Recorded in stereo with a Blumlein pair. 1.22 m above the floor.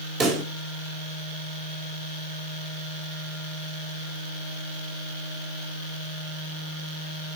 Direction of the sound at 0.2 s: 25° right.